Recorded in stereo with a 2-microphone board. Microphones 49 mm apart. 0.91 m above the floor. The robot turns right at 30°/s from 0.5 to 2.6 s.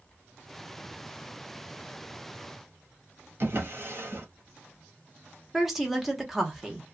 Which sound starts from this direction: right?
A drawer, at 3.4 s.